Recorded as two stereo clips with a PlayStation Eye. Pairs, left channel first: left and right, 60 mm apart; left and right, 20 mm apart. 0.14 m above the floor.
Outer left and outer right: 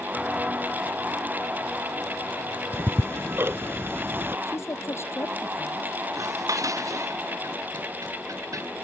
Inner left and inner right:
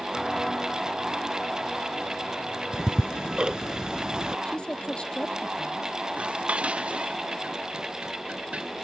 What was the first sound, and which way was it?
Footsteps, 15° right (ahead or behind).